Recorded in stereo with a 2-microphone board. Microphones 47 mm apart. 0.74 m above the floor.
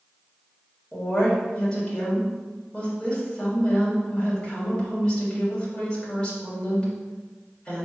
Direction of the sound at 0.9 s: 20° left (ahead or behind).